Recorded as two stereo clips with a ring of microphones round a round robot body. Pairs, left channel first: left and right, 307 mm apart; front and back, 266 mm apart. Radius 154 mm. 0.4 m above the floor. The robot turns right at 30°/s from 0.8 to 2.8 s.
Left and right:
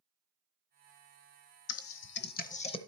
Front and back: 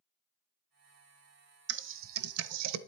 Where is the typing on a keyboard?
130° left, 0.7 m; by 2.8 s 165° left, 0.7 m.